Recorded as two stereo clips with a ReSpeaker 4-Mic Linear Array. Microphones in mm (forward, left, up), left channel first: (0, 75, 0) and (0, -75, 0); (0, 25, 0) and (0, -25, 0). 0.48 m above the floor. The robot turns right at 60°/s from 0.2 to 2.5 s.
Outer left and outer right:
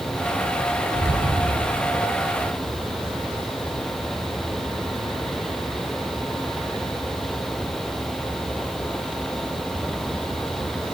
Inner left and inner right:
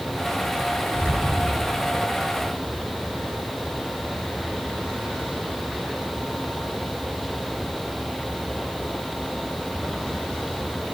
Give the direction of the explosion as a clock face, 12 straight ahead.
4 o'clock.